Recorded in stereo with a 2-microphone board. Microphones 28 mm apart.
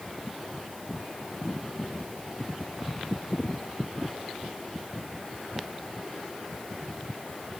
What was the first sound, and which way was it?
Only background noise.